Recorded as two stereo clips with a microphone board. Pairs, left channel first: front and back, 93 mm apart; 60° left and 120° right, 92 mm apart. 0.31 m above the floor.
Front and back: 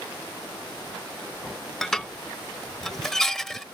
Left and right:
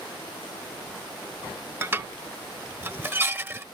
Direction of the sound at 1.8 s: 80° right.